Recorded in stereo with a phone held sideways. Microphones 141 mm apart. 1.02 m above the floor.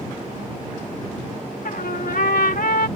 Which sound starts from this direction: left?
A trumpet, at 1.6 s.